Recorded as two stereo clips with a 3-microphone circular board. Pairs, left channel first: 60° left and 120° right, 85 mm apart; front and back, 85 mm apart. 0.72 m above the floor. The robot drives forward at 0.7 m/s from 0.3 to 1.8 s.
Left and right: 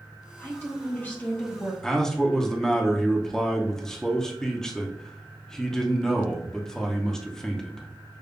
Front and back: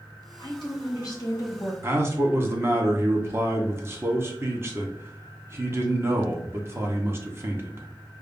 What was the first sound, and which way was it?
A woman speaking, straight ahead.